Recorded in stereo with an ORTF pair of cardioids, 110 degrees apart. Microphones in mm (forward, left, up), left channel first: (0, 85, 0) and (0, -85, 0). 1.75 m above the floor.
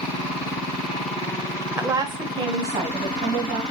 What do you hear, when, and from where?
1.8 s a woman speaking: 15° right, 0.7 m; by 3.6 s 45° right, 1.9 m